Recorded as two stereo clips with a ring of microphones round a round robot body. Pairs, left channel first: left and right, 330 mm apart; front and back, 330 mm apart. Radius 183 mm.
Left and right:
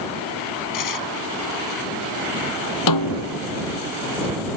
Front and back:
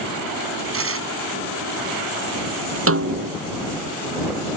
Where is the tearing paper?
130° left.